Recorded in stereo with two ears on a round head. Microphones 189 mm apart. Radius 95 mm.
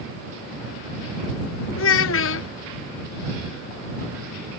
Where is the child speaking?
65° left (ahead or behind).